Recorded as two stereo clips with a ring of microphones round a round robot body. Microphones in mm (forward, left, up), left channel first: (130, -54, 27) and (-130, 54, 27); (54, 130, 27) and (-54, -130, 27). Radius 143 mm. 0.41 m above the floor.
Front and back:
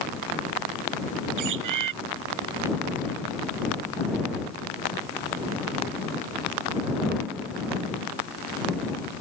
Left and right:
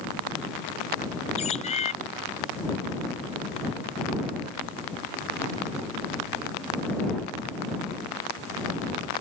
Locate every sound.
1.4 s a bird: 135° left